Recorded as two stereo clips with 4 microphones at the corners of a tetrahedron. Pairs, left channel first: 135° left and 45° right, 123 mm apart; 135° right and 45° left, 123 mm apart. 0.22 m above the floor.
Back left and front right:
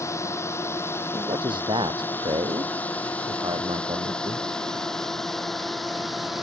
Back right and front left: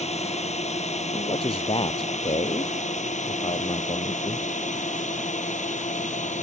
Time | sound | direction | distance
0.0 | a drone | 160° right | ?
1.1 | a man speaking | 95° right | ?